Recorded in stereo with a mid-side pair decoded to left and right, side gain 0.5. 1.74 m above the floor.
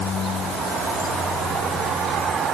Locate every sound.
Only background noise.